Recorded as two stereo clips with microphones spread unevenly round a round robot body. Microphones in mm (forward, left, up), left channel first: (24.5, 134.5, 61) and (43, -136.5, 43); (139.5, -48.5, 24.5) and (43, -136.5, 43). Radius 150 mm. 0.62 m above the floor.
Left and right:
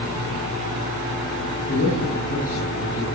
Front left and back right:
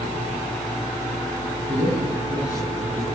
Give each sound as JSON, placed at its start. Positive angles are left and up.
{"t": 1.7, "sound": "a man speaking", "azimuth_deg": 155, "distance_m": 9.0}